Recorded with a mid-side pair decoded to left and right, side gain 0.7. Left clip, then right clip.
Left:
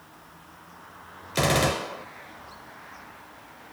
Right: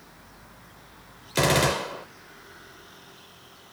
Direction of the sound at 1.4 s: 5° right.